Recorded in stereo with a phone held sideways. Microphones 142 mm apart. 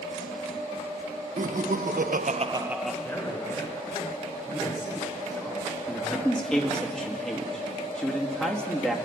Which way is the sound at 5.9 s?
5° left (ahead or behind).